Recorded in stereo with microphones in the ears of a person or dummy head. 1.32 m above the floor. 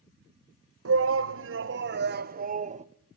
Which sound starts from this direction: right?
A shout, at 0.8 s.